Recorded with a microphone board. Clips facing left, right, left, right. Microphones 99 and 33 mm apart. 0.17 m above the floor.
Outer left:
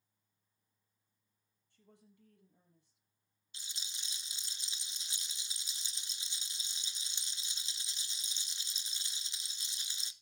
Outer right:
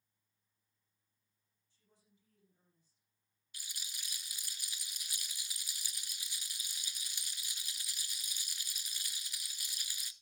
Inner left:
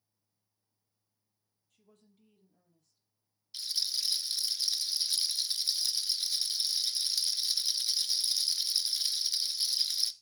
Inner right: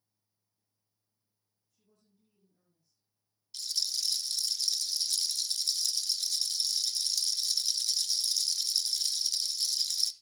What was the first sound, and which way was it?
A woman speaking, 65° left (ahead or behind).